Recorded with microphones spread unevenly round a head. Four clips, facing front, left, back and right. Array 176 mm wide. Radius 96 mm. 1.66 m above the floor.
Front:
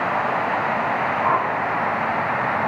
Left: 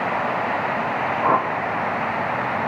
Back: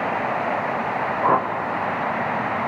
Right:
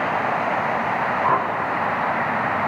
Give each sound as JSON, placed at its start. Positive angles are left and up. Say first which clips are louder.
{"t": 1.2, "sound": "a whoosh", "louder": "left 2 dB, back 3 dB", "azimuth_deg": 140, "distance_m": 0.8}